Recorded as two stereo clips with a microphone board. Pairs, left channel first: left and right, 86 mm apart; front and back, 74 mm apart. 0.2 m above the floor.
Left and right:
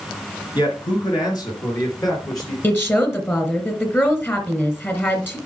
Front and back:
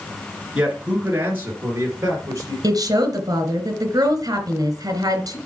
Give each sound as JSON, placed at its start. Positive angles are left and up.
{"t": 0.6, "sound": "a man speaking", "azimuth_deg": 105, "distance_m": 3.0}
{"t": 2.6, "sound": "a woman speaking", "azimuth_deg": 150, "distance_m": 2.5}